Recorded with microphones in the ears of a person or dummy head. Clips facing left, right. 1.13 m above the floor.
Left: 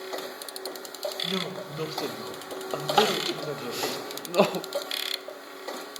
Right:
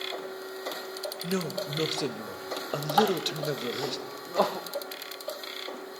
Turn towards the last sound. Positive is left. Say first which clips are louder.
# even
turn(degrees=35)  # may be behind; listen again after turning